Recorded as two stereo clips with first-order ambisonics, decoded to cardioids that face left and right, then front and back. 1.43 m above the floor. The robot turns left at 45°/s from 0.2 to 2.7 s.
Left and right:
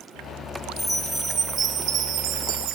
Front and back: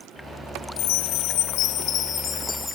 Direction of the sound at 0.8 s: 5° left.